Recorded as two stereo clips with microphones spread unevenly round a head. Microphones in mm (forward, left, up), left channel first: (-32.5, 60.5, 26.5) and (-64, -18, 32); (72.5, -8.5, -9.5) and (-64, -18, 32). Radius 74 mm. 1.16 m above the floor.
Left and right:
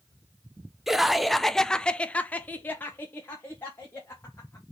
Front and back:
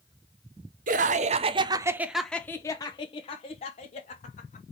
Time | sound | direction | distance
0.9 | laughter | 160° left | 0.8 m